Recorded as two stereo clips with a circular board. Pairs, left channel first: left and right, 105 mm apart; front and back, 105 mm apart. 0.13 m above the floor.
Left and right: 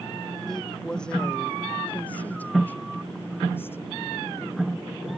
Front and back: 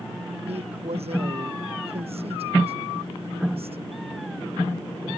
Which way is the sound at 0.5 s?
175° left.